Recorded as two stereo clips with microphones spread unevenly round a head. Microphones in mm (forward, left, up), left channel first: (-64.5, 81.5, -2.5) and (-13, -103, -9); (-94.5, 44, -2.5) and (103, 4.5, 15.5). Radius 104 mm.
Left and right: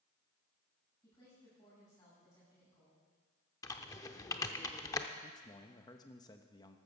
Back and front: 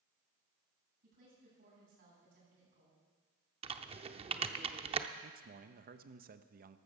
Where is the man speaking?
35° left, 0.9 m.